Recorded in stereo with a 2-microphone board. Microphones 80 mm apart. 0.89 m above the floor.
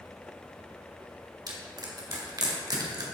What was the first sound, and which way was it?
Crushing, 55° right (ahead or behind).